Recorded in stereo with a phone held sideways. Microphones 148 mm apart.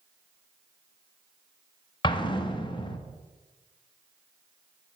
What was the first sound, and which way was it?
An explosion, 35° left (ahead or behind).